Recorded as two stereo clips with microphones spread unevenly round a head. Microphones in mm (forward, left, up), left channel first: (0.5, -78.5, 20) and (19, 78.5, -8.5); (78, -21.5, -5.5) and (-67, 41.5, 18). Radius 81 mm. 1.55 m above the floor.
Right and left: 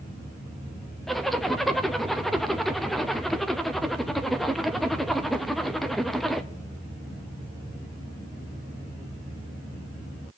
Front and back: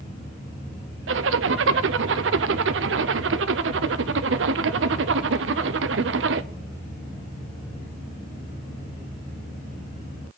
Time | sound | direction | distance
1.1 | a zipper | 170° left | 0.6 m